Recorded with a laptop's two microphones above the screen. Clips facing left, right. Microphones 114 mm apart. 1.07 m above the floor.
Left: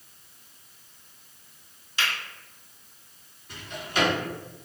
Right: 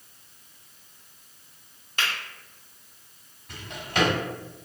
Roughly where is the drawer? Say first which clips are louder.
Right 1 dB; right.